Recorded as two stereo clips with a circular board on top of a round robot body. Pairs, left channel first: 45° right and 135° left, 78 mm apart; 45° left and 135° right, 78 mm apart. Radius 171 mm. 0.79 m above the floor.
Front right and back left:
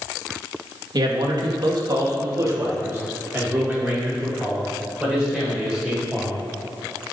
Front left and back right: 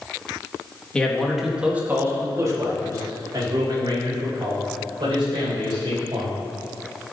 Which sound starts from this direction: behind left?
A man speaking, at 0.9 s.